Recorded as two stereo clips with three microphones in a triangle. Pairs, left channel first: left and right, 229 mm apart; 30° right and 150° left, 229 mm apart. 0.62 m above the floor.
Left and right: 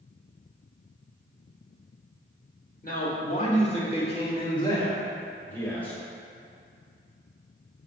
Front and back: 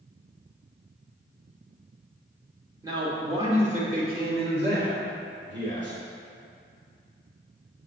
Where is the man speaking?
85° left, 1.5 m; by 6.0 s 175° left, 2.5 m.